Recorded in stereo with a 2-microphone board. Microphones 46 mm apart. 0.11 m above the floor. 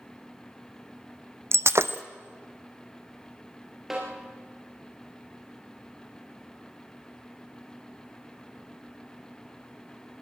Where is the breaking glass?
70° right (ahead or behind), 0.7 m.